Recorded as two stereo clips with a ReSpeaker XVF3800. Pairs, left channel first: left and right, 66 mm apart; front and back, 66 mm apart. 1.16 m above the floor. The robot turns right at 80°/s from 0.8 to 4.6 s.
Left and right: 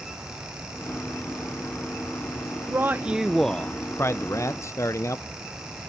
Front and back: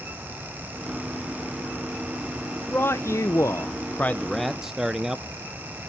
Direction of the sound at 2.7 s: 55° right.